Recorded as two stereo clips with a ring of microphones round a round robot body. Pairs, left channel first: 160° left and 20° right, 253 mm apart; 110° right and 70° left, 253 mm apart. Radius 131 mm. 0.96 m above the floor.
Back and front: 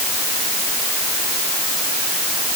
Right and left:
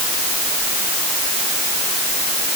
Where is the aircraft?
I don't hear an aircraft.